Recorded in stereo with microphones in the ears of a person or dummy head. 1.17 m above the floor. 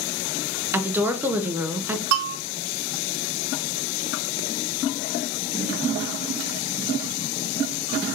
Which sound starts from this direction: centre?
A woman speaking, at 0.7 s.